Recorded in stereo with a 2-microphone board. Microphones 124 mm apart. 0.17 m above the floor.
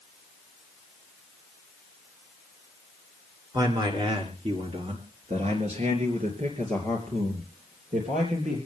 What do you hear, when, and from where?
3.5 s a man speaking: 35° right (ahead or behind), 3 m; by 8.6 s 65° right (ahead or behind), 5 m